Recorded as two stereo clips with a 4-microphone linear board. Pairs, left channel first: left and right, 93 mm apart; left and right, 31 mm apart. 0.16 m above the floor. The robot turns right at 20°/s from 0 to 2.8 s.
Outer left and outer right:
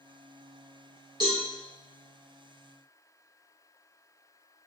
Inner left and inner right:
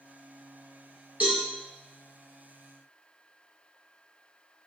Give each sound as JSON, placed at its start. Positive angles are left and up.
{"t": 1.2, "sound": "a cowbell", "side_deg": -45, "distance_m": 1.6}